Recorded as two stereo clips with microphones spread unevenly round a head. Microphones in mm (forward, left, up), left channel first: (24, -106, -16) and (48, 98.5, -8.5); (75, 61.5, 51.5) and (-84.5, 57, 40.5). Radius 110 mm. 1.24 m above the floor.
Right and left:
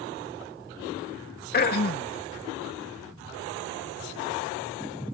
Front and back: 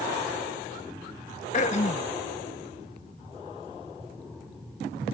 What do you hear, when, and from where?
1.5 s throat clearing: 55° right